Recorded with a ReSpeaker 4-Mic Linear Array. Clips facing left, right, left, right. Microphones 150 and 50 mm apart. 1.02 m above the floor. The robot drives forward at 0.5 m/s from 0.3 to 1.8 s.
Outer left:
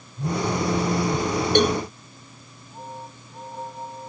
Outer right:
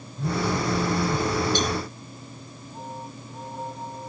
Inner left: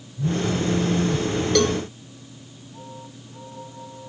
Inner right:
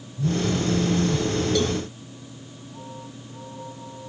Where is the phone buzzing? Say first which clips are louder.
Outer left 1 dB, even; 15° left (ahead or behind); by 1.3 s 10° left (ahead or behind).